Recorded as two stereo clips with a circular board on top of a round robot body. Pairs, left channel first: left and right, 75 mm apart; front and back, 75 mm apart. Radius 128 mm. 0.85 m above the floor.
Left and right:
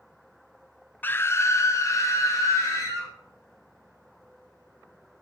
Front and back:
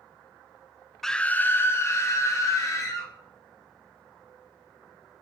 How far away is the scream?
About 0.6 m.